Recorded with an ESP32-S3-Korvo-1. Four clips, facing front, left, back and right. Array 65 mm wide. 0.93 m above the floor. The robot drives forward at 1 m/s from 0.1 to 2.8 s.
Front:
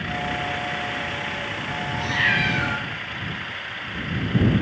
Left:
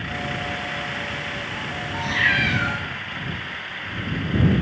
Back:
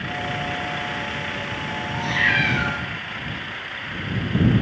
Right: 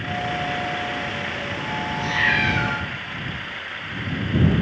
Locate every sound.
1.9 s a cat meowing: 120° left, 4 m; by 2.8 s 130° left, 4.5 m